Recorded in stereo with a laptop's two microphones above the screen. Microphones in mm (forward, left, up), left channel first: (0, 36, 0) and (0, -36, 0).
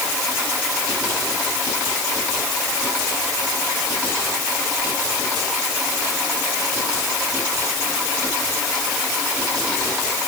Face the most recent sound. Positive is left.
No sound to turn to.